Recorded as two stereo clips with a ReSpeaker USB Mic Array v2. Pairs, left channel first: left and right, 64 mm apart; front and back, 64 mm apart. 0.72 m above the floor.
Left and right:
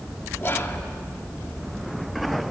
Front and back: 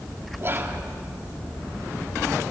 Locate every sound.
0.4 s whispering: 135° left, 1.9 m